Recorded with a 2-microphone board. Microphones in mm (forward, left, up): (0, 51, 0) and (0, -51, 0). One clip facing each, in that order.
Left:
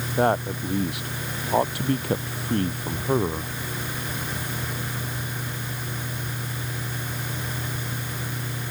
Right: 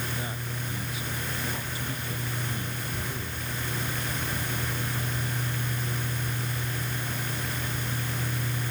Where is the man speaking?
65° left (ahead or behind); by 3.5 s 60° left (ahead or behind).